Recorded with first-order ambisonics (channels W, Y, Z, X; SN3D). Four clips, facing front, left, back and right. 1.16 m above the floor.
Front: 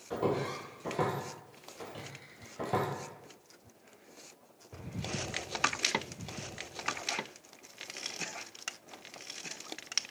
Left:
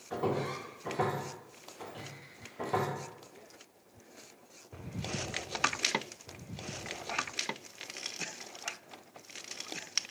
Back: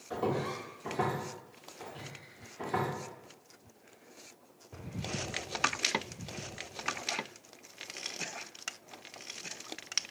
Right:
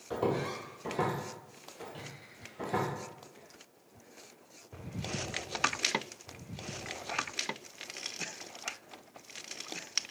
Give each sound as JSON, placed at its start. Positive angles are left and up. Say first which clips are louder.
{"t": 0.1, "sound": "footsteps", "louder": "right 1 dB, front 1 dB", "azimuth_deg": -90, "distance_m": 1.5}